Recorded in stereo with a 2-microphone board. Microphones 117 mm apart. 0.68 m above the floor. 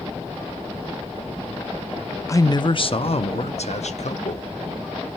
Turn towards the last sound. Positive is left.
turn(degrees=70)  # may be behind; listen again after turning